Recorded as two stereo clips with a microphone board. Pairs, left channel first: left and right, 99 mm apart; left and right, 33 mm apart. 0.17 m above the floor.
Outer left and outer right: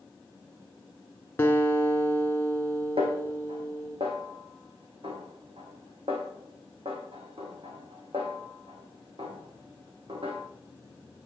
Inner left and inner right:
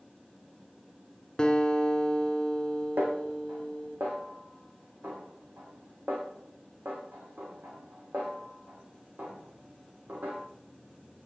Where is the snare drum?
75° right (ahead or behind), 3 m.